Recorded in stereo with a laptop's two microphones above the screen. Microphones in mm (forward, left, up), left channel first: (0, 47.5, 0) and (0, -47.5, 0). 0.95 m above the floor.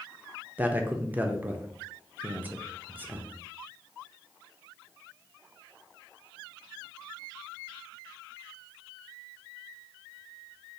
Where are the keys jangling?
I don't hear keys jangling.